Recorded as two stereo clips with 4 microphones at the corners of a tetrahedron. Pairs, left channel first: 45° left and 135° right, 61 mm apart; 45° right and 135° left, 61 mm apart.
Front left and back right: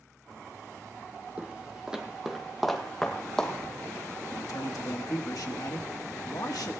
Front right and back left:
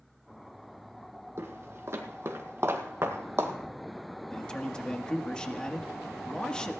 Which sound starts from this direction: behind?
Footsteps, at 1.4 s.